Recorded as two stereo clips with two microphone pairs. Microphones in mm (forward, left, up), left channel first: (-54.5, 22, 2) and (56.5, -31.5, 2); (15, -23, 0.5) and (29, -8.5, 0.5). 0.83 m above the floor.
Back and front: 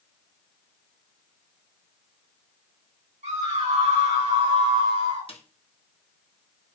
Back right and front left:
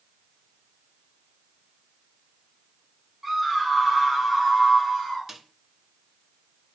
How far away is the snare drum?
About 1.2 m.